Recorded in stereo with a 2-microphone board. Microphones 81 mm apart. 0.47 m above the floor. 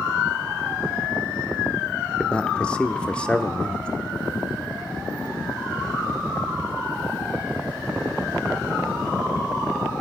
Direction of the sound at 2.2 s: 10° left (ahead or behind).